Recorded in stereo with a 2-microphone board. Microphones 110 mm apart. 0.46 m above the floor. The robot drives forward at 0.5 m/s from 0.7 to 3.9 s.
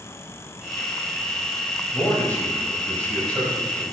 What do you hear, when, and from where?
1.9 s a man speaking: 20° left (ahead or behind), 2.5 m; by 3.8 s 15° left (ahead or behind), 3.5 m